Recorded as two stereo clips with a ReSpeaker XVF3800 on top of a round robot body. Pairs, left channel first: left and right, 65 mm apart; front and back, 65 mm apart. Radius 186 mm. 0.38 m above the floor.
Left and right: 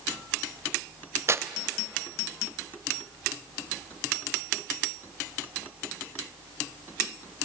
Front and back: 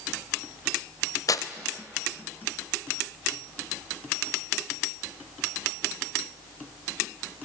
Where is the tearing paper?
40° right, 0.7 m.